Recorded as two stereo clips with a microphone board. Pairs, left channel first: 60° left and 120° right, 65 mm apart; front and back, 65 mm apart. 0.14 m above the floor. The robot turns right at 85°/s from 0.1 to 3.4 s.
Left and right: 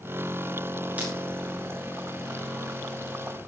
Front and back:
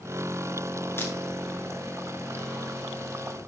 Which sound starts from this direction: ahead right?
Breaking glass, at 1.0 s.